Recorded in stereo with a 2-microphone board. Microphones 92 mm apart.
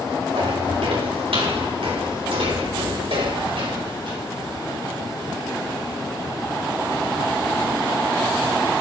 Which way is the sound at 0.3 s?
75° right (ahead or behind).